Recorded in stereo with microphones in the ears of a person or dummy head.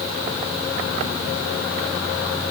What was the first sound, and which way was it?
Only background noise.